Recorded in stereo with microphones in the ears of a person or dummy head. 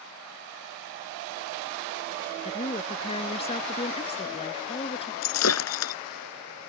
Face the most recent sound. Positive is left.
turn(degrees=80)